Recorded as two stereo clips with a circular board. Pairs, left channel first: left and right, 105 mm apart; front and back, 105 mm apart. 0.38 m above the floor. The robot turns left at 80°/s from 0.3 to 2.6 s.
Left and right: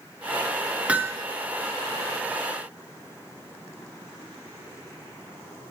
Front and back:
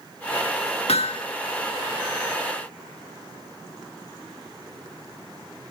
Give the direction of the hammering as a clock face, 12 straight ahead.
12 o'clock.